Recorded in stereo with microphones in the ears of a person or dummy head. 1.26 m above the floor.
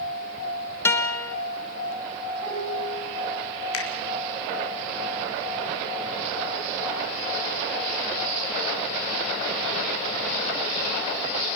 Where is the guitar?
10° left (ahead or behind), 1.5 m.